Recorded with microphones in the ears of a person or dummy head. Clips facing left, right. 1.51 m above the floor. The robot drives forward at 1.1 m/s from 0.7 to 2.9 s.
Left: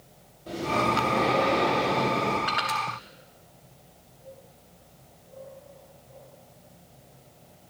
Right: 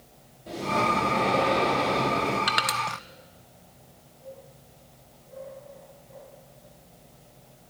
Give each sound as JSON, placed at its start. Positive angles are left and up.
{"t": 0.5, "sound": "breathing", "side_deg": 0, "distance_m": 4.0}
{"t": 2.5, "sound": "crushing", "side_deg": -50, "distance_m": 1.1}